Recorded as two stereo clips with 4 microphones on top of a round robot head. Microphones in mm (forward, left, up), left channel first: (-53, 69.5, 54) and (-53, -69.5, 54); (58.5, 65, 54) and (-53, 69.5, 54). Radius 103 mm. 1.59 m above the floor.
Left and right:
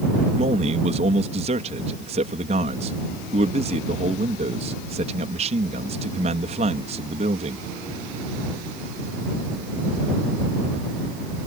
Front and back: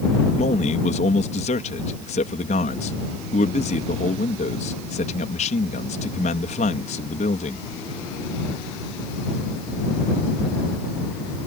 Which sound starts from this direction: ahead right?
A man speaking, at 0.4 s.